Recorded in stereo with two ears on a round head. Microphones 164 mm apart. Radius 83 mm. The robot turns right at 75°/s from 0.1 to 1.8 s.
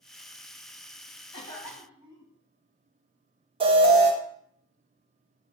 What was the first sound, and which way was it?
A cough, 150° left.